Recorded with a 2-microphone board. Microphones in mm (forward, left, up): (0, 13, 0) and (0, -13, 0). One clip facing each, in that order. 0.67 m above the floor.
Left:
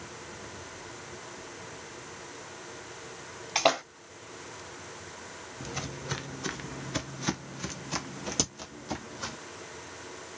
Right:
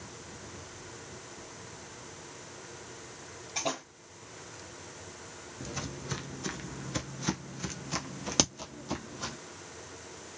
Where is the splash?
75° left (ahead or behind), 0.7 m.